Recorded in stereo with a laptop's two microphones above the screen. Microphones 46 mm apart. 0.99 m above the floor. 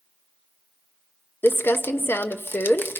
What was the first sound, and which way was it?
Crumpling, 55° left (ahead or behind).